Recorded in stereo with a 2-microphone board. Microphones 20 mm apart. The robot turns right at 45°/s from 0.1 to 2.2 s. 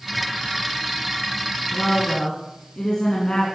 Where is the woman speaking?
25° left (ahead or behind), 3 m; by 3.5 s 40° left (ahead or behind), 3 m.